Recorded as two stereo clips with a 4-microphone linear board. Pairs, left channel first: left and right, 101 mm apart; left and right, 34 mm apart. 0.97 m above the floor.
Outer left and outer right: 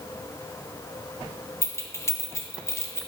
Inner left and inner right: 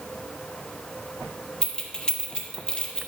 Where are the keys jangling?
30° left (ahead or behind), 1.2 m.